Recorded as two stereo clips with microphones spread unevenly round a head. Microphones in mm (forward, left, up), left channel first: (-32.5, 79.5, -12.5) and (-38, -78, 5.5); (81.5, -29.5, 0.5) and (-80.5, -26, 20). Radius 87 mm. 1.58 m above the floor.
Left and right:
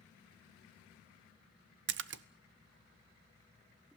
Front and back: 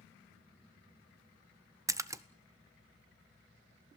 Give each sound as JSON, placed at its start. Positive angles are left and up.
{"t": 1.9, "sound": "a splash", "azimuth_deg": -105, "distance_m": 0.9}